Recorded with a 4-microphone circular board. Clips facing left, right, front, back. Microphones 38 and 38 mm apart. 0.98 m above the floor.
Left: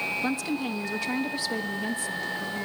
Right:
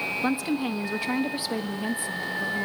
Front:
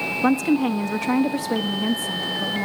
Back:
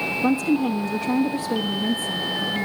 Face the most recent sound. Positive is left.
turn(degrees=-20)